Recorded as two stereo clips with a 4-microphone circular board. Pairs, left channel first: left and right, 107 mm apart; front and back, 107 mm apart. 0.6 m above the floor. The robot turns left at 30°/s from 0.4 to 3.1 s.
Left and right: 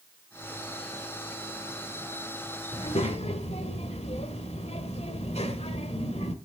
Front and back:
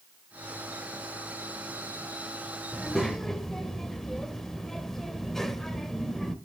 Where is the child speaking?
95° left, 1.5 m; by 6.3 s 85° left, 1.5 m.